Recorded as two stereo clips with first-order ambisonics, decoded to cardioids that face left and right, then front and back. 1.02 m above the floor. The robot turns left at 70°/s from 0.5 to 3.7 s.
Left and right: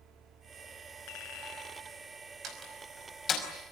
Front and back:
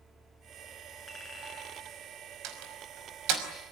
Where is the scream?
I don't hear a scream.